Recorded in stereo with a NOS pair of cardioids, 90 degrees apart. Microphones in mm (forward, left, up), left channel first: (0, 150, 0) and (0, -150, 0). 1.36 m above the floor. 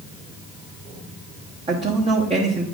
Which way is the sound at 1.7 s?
25° right.